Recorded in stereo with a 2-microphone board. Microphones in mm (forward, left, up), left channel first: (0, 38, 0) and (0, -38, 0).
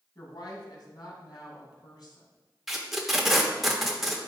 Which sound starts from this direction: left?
A woman speaking, at 0.1 s.